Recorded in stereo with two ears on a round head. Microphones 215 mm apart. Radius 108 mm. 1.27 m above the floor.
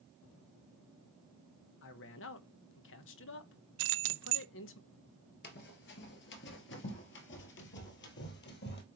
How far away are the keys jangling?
About 0.6 m.